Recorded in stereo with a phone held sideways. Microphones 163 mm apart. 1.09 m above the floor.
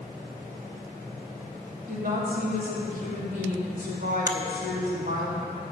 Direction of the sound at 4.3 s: 20° right (ahead or behind).